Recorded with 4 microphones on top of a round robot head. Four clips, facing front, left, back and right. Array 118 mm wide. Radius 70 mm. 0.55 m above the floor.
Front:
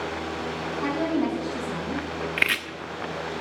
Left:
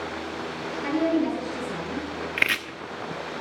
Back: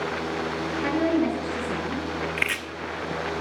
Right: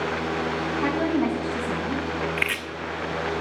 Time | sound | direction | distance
0.8 | a woman speaking | 70° right | 5.5 m
2.4 | chopping | 60° left | 1.3 m